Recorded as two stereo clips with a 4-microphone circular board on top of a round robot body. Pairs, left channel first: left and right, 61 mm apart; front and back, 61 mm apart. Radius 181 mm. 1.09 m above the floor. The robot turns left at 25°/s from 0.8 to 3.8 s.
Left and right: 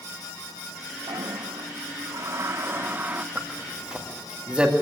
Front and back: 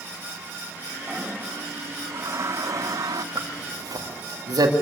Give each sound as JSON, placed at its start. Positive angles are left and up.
{"t": 1.1, "sound": "a toilet flushing", "azimuth_deg": -105, "distance_m": 0.8}
{"t": 3.4, "sound": "a zipper", "azimuth_deg": -155, "distance_m": 2.0}